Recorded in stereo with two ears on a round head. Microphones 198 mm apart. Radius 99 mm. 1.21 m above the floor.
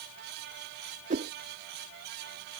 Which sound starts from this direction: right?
A whoosh, at 1.1 s.